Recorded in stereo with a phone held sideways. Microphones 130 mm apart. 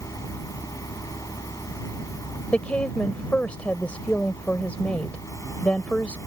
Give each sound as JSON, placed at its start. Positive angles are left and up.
{"t": 0.0, "sound": "a fan", "side_deg": 25}
{"t": 2.5, "sound": "a woman speaking", "side_deg": 10}